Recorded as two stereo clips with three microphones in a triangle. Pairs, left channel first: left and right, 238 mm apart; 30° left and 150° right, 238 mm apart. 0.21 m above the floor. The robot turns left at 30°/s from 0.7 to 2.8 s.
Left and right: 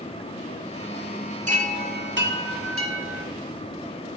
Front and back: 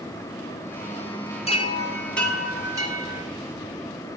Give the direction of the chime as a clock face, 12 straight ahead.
1 o'clock.